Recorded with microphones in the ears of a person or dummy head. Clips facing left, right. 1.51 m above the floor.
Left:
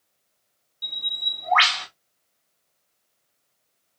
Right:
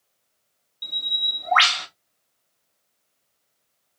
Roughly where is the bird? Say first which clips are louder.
Right 2 dB; centre.